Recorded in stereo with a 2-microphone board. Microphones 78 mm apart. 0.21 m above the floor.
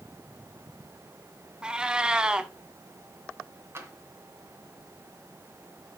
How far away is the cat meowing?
About 0.7 m.